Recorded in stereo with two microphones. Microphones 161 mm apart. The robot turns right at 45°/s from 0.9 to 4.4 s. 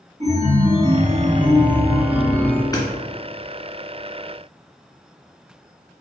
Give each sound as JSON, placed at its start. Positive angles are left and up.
{"t": 0.2, "sound": "a chime", "azimuth_deg": -65, "distance_m": 1.9}
{"t": 2.7, "sound": "hammering", "side_deg": 25, "distance_m": 2.5}